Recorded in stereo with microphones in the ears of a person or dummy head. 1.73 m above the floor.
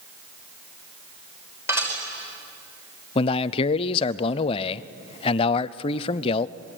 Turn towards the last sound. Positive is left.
turn(degrees=35)  # may be behind; listen again after turning